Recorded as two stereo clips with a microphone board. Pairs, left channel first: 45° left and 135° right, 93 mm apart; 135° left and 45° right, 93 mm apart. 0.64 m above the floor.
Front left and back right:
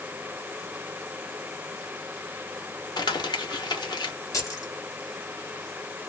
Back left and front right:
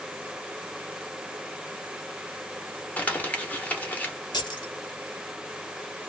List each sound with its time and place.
3.0 s crumpling: 65° left, 1.5 m
4.3 s keys jangling: 95° left, 1.7 m